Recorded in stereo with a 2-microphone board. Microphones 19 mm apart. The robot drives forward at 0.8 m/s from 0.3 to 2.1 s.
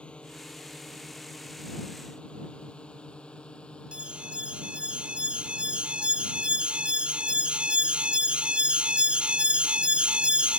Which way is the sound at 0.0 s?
65° left (ahead or behind).